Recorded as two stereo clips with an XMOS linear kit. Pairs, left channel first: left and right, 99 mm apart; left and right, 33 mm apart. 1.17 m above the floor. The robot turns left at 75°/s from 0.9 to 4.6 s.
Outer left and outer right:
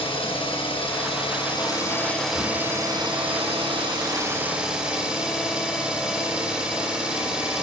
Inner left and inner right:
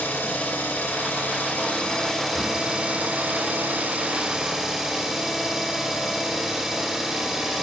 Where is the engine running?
110° left, 2 m; by 7.6 s 170° right, 2 m.